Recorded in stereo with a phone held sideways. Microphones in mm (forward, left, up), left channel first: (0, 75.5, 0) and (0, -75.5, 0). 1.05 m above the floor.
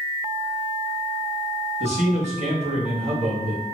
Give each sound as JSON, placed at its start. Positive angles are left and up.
{"t": 1.8, "sound": "a man speaking", "side_deg": -50, "distance_m": 1.3}